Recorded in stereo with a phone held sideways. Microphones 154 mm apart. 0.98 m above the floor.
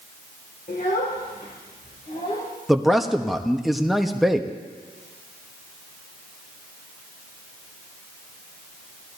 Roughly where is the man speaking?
Centre.